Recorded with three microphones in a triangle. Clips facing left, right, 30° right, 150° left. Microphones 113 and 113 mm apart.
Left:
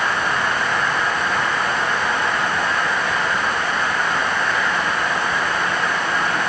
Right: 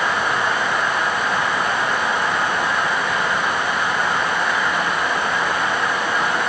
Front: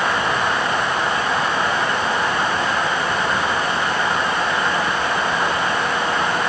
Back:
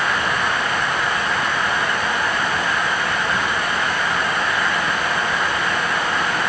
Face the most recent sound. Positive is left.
No sound to turn to.